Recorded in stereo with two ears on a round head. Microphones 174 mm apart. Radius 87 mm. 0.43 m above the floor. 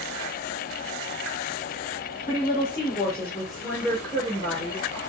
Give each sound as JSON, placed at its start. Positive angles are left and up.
{"t": 2.3, "sound": "a woman speaking", "side_deg": 40, "distance_m": 1.1}